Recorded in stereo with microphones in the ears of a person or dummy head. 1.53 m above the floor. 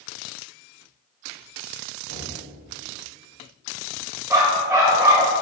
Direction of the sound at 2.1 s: 70° right (ahead or behind).